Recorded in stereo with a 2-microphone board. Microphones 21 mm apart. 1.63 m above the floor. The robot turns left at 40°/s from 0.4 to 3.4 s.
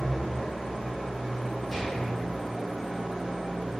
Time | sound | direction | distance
0.0 | an engine running | 90° left | 1.0 m
1.7 | a gunshot | 10° left (ahead or behind) | 1.1 m